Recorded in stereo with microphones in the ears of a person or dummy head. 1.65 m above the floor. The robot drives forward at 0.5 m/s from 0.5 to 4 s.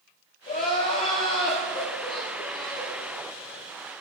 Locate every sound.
0.5 s crying: 25° left (ahead or behind), 1.2 m; by 3.0 s 15° left (ahead or behind), 1.9 m